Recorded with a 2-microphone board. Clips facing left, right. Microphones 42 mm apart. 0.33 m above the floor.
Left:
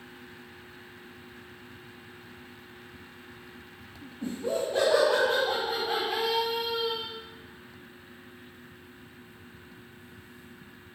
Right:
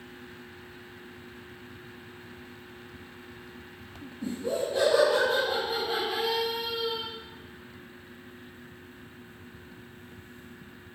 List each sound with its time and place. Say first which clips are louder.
4.2 s laughter: even; 55° left (ahead or behind), 2 m; by 7.0 s 70° left (ahead or behind), 4 m